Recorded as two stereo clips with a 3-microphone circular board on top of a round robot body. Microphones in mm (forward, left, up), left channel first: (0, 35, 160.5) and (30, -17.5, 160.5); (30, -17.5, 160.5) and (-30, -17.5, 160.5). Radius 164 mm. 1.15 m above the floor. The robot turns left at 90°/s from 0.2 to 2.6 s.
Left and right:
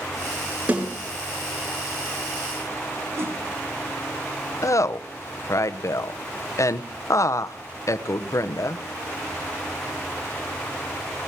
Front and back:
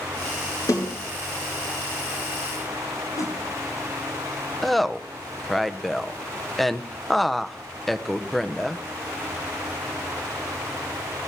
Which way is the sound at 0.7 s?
10° left.